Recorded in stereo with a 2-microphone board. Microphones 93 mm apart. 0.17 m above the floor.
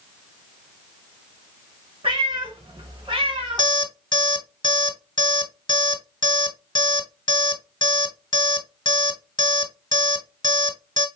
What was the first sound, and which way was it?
A cat meowing, 75° right (ahead or behind).